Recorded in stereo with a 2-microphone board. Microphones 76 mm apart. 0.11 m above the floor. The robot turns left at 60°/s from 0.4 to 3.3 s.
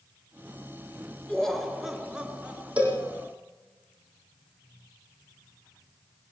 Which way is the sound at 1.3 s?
10° left (ahead or behind).